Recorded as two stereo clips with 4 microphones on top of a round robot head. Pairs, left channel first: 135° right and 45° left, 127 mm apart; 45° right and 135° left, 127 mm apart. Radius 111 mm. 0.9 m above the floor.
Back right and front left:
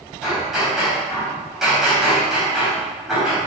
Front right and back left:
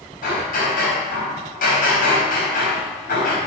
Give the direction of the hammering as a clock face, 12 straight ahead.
1 o'clock.